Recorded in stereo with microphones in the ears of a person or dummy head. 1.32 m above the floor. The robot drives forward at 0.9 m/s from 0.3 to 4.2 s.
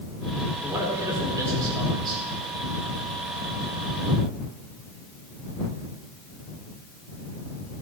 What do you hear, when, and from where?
0.6 s a man speaking: 15° right (ahead or behind), 3.5 m; by 2.2 s 25° right (ahead or behind), 2.5 m